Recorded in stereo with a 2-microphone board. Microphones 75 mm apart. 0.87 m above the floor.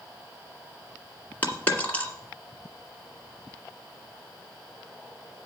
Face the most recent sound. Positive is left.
turn(degrees=20)  # may be behind; listen again after turning